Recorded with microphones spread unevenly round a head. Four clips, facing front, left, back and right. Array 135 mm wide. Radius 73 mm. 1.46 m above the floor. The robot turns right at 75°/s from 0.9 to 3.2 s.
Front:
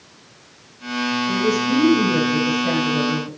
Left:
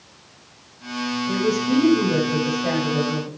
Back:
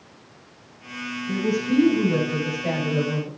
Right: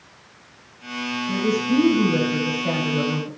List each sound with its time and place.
1.3 s a woman speaking: 15° left, 9 m; by 3.3 s 160° left, 9 m